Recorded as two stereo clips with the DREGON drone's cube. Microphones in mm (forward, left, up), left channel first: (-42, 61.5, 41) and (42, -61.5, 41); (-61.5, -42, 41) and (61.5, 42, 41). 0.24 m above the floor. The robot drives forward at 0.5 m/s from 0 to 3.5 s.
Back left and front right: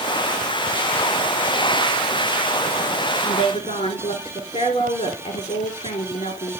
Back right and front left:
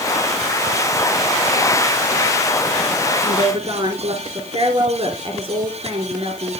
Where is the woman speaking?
85° left, 4.5 m.